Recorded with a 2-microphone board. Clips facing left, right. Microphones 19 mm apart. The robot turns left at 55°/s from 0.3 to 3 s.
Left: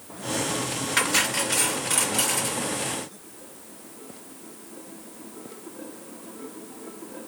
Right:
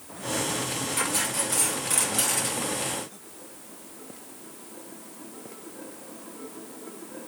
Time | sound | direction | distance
1.0 | cutlery clinking | 70° left | 3 m